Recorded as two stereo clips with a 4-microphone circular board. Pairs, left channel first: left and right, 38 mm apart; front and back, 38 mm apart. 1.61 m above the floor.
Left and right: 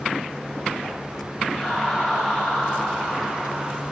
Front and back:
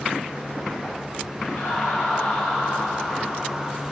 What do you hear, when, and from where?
1.5 s laughter: 25° left, 9 m